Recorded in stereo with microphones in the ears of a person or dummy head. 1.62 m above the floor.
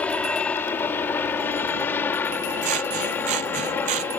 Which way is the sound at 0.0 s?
10° left (ahead or behind).